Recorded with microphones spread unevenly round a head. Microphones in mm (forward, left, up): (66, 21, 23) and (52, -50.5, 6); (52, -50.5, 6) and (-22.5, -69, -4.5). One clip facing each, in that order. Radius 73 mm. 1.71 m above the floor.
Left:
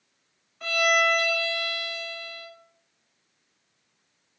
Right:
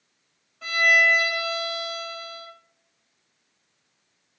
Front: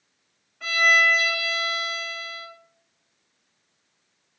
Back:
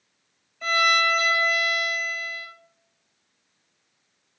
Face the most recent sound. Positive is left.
turn(degrees=110)